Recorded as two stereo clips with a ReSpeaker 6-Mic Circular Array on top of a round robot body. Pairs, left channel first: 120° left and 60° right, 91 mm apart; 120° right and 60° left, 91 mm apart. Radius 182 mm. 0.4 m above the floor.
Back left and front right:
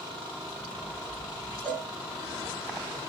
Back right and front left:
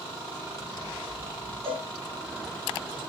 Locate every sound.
1.6 s a cowbell: 40° left, 2 m